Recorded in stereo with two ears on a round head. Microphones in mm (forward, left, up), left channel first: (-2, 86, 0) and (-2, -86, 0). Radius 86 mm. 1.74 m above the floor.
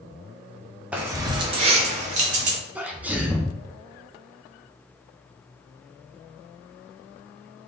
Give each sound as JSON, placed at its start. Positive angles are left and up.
{"t": 0.9, "sound": "keys jangling", "side_deg": -5, "distance_m": 0.7}
{"t": 2.8, "sound": "a sneeze", "side_deg": -10, "distance_m": 0.8}